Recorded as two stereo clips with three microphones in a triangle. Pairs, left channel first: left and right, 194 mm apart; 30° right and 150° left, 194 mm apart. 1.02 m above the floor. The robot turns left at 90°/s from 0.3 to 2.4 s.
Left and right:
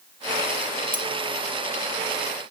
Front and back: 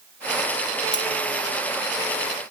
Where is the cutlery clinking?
45° right, 3.5 m; by 1.1 s 55° right, 3.5 m.